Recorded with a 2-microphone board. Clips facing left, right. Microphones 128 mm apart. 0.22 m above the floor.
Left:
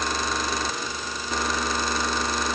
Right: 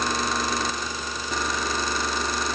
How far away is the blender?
No blender in this recording.